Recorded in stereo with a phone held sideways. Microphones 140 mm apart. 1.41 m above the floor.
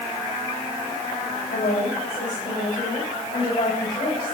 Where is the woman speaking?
75° left (ahead or behind), 6.5 m; by 4.3 s 55° left (ahead or behind), 7.5 m.